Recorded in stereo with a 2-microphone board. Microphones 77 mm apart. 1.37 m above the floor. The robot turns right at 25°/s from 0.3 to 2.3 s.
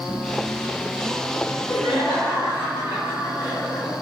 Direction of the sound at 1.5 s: 70° left (ahead or behind).